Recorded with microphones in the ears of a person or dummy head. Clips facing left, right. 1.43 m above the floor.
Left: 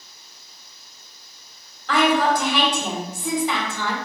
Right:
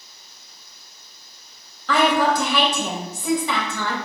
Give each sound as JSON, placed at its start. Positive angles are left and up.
{"t": 1.9, "sound": "a woman speaking", "side_deg": -70, "distance_m": 1.5}